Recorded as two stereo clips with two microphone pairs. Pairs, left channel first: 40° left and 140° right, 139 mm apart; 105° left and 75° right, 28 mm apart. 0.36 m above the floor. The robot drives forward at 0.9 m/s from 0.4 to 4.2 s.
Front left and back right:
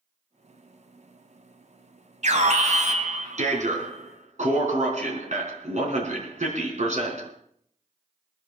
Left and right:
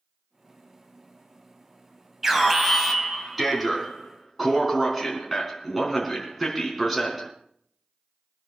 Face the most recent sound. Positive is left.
turn(degrees=-165)